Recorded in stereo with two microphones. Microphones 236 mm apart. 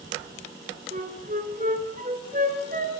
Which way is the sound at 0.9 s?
35° right (ahead or behind).